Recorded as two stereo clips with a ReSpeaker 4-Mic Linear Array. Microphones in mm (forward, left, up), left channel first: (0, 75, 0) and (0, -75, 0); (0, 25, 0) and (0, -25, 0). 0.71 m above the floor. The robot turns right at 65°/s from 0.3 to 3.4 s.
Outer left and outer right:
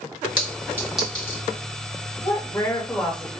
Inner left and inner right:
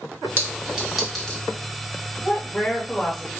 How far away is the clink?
About 1.3 m.